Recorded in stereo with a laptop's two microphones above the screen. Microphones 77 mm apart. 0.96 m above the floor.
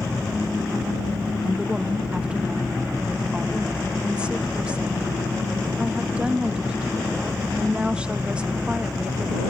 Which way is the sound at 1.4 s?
15° right (ahead or behind).